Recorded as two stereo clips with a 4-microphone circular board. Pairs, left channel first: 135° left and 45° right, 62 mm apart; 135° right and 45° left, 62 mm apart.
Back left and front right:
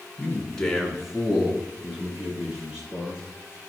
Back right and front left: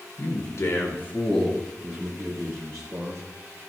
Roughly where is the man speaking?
Behind right.